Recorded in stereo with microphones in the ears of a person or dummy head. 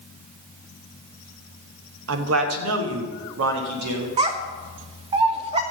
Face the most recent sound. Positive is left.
turn(degrees=-30)  # may be behind; listen again after turning